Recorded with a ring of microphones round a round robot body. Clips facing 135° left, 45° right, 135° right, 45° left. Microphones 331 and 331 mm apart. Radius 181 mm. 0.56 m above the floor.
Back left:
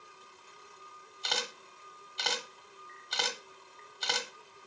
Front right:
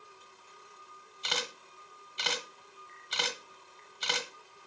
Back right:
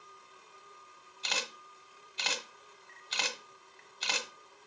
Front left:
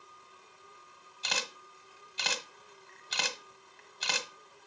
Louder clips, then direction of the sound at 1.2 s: Even, front left 1 dB; 35° left.